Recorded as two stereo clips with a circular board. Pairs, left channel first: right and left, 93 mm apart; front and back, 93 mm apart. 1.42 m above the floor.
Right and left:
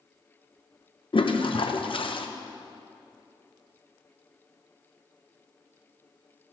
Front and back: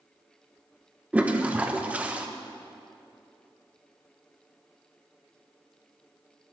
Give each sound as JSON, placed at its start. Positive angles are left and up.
{"t": 1.1, "sound": "a toilet flushing", "azimuth_deg": -105, "distance_m": 0.8}